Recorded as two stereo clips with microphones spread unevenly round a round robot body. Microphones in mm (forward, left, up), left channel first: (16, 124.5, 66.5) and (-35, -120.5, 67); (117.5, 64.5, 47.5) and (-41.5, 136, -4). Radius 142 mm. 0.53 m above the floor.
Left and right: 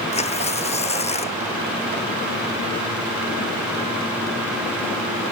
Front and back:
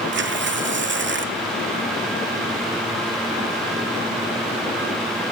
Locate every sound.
0.1 s tearing paper: 145° left